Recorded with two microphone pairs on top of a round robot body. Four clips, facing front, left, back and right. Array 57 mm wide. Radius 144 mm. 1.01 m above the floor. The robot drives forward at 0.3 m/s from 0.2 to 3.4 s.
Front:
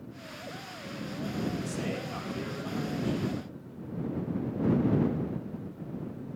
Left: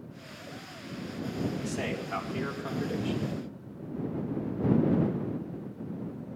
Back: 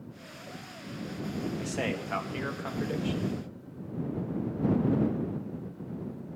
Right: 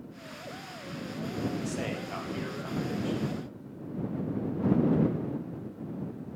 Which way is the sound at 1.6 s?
Straight behind.